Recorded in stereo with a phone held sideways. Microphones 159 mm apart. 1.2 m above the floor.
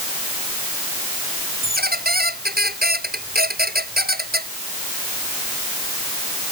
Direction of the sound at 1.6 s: 75° right (ahead or behind).